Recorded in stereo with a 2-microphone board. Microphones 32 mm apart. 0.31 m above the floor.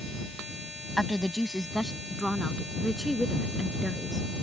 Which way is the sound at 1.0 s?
10° right (ahead or behind).